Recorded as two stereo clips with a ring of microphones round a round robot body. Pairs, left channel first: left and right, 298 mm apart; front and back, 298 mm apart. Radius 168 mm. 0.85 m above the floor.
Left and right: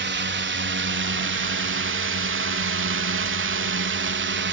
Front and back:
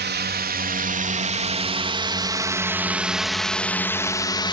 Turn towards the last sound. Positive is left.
turn(degrees=-65)